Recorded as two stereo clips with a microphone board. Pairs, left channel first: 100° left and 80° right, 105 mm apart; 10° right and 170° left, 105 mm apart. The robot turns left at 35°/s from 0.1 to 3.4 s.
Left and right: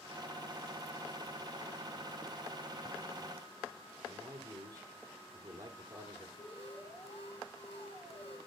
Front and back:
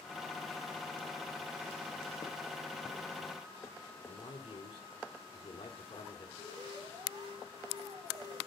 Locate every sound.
4.0 s a man speaking: 25° right, 3.5 m
6.4 s an alarm: 125° left, 5.5 m